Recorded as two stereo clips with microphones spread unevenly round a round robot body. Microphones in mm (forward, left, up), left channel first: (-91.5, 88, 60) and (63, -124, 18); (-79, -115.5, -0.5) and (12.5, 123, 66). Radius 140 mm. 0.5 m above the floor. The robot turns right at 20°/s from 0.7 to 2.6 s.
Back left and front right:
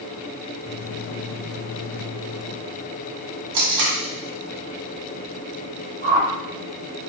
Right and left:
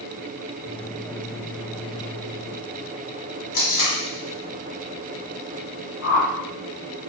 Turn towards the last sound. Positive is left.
turn(degrees=-100)